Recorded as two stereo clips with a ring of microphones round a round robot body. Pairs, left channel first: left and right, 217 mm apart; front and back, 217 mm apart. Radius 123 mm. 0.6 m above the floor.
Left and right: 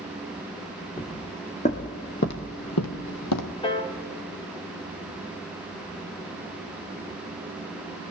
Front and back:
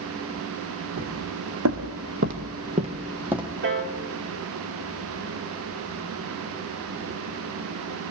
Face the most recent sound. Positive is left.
turn(degrees=155)